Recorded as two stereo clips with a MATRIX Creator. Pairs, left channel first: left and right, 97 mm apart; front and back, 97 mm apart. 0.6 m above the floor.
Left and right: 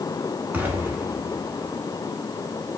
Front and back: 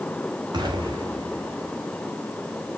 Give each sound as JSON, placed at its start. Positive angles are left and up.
{"t": 0.5, "sound": "an explosion", "azimuth_deg": -160, "distance_m": 1.7}